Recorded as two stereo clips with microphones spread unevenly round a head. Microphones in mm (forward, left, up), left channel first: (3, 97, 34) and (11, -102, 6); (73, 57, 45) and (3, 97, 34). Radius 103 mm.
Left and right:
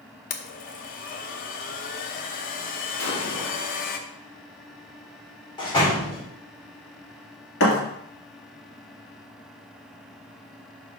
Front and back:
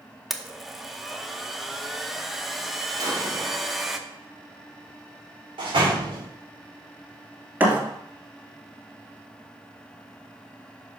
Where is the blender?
60° left, 0.8 m.